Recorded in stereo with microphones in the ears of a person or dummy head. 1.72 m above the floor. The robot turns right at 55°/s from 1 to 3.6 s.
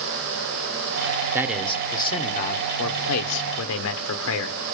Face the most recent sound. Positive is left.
turn(degrees=110)